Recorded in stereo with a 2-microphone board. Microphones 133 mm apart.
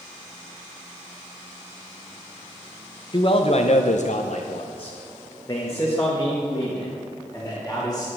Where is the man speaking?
40° left (ahead or behind), 0.9 m; by 8.1 s 10° left (ahead or behind), 3 m.